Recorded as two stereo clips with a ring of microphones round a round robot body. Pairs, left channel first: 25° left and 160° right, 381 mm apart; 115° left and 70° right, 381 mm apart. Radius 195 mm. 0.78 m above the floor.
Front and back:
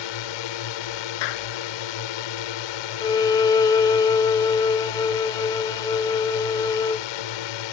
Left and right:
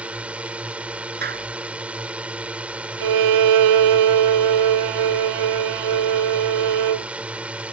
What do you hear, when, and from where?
0.0 s a drone: 20° left
1.2 s a clap: straight ahead
3.0 s a violin: 60° right